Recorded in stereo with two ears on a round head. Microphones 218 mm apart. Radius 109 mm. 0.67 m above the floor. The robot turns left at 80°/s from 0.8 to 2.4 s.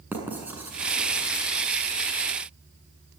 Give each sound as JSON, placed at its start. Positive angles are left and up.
{"t": 0.1, "sound": "writing", "side_deg": -10, "distance_m": 7.0}